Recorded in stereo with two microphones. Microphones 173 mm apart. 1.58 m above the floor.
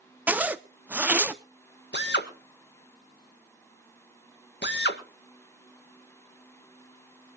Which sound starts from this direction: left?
A drill, at 1.9 s.